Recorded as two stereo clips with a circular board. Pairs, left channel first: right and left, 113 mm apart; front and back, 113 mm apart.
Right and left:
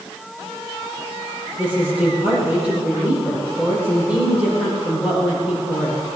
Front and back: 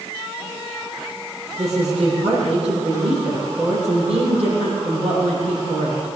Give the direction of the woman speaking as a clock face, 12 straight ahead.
6 o'clock.